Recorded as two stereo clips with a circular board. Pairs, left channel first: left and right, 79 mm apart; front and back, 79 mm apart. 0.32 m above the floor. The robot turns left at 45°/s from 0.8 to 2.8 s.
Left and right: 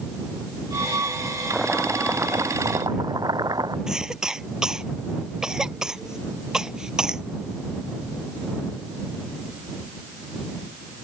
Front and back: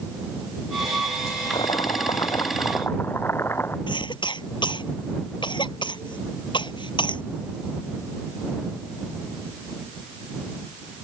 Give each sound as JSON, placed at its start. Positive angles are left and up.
{"t": 1.5, "sound": "chopping", "azimuth_deg": -5}
{"t": 3.9, "sound": "a cough", "azimuth_deg": -10}